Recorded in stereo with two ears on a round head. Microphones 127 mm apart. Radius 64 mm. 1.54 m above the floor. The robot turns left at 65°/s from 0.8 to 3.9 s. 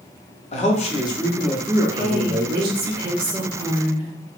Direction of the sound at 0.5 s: 45° left.